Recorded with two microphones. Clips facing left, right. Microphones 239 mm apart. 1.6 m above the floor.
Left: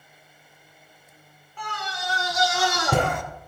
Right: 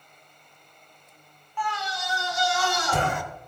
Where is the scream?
40° left (ahead or behind), 1.7 m; by 3.2 s 60° left (ahead or behind), 2.5 m.